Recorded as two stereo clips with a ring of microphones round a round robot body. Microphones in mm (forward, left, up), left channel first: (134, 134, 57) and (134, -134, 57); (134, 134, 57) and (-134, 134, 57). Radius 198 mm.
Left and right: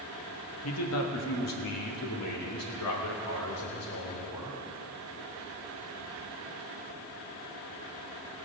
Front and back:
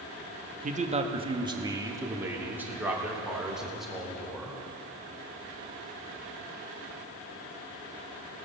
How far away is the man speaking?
About 1.3 m.